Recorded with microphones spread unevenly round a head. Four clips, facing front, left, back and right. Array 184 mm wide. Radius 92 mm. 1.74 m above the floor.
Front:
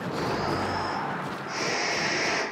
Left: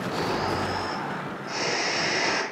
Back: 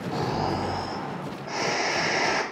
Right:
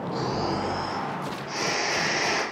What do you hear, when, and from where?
0.1 s snoring: 170° left, 0.7 m